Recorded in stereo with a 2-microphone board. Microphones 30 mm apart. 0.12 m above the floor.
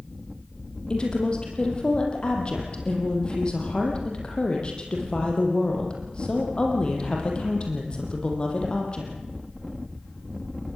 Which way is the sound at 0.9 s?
35° left (ahead or behind).